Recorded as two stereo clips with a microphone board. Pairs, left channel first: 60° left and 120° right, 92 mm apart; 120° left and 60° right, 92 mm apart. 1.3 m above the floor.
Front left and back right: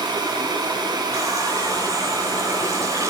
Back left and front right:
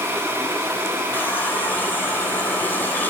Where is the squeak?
I don't hear a squeak.